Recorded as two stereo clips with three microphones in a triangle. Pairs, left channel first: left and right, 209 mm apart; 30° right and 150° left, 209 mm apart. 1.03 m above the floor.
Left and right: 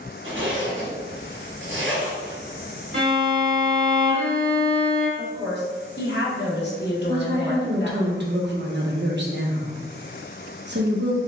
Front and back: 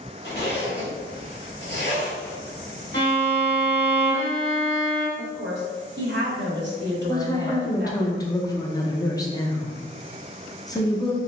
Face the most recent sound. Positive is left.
turn(degrees=-100)